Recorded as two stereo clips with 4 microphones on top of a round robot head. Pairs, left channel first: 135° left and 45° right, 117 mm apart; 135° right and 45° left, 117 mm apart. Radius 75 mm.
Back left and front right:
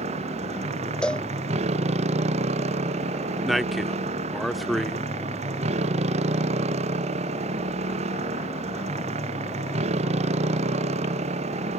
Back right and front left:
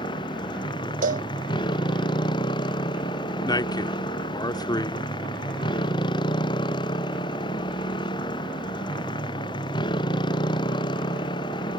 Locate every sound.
0.0 s a motorcycle: 80° right
1.0 s a cowbell: 50° left
3.4 s a man speaking: 135° right